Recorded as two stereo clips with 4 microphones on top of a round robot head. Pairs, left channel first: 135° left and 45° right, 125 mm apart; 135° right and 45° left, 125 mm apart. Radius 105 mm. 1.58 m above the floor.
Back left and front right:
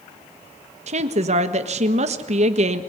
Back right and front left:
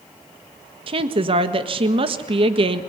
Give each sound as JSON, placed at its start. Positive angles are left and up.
{"t": 0.9, "sound": "a woman speaking", "azimuth_deg": -5, "distance_m": 1.6}